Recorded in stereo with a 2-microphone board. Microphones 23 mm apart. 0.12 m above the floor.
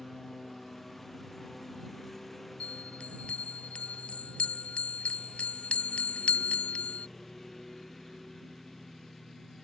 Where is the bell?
55° left (ahead or behind).